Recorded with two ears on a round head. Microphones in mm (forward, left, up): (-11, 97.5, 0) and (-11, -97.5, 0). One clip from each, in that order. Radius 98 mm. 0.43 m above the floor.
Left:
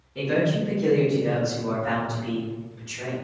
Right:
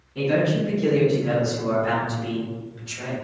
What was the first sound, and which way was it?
A man speaking, 5° left (ahead or behind).